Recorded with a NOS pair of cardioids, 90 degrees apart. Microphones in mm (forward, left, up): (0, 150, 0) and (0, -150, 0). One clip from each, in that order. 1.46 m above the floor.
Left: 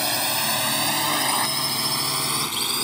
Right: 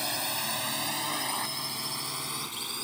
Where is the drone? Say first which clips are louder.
Left 8 dB; 55° left; by 2.8 s 75° left.